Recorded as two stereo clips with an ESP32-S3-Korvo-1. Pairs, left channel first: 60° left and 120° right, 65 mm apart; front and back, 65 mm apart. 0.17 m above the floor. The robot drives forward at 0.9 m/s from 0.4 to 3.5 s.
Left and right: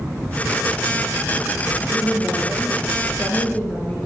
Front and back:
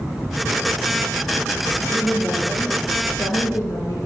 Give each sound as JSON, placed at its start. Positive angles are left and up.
{"t": 1.9, "sound": "a woman speaking", "azimuth_deg": -5, "distance_m": 4.0}